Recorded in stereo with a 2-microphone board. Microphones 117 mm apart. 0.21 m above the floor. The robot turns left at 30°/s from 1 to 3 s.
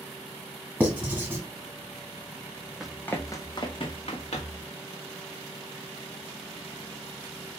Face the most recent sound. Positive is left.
turn(degrees=65)  # may be behind; listen again after turning